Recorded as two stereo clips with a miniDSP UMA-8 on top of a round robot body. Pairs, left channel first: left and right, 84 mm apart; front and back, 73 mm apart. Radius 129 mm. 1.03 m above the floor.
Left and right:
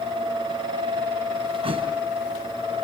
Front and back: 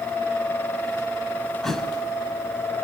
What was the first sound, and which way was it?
A thud, 85° right.